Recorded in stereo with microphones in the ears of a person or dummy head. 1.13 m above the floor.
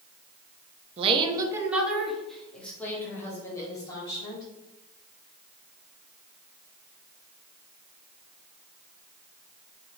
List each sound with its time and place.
1.0 s a woman speaking: 35° right (ahead or behind), 0.7 m; by 4.5 s 20° left (ahead or behind), 2.5 m